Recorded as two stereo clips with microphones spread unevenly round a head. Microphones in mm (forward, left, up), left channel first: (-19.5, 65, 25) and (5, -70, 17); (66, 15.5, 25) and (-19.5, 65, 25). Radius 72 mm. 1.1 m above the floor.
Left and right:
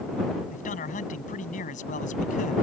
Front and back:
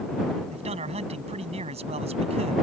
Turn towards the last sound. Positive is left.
turn(degrees=135)